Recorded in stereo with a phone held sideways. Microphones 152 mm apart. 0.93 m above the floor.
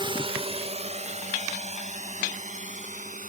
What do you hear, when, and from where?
0.0 s a drone: 30° right (ahead or behind); by 3.3 s 55° right (ahead or behind)